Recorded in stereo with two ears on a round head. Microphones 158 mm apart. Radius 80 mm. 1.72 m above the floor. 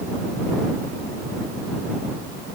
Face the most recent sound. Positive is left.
No sound to turn to.